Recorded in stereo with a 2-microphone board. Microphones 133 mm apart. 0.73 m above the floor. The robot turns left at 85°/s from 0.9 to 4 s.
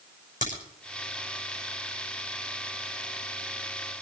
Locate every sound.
0.4 s a crack: 75° left (ahead or behind), 6 m